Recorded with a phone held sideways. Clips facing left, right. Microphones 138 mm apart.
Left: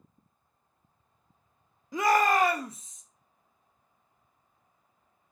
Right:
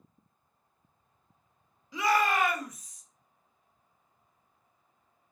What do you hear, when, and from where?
1.9 s a shout: 50° left (ahead or behind), 0.6 m; by 3.0 s 20° left (ahead or behind), 0.8 m